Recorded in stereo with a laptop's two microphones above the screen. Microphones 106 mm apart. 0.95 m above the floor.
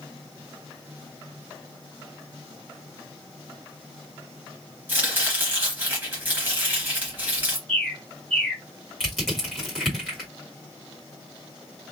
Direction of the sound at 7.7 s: Centre (ahead or behind).